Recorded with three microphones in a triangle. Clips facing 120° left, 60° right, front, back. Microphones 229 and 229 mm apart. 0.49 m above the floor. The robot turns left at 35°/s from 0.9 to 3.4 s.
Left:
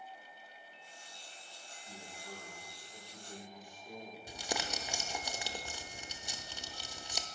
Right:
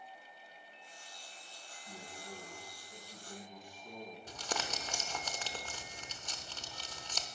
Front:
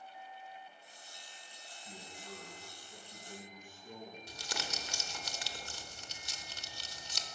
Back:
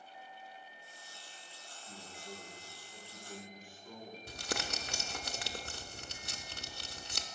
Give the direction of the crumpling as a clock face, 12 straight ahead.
5 o'clock.